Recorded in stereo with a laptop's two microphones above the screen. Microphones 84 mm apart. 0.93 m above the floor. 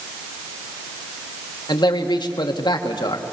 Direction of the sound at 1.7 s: 65° left (ahead or behind).